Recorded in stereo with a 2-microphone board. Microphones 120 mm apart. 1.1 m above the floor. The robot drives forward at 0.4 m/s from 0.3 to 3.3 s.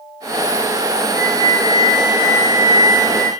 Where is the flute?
75° left (ahead or behind), 3.5 m; by 3.3 s 60° left (ahead or behind), 3.5 m.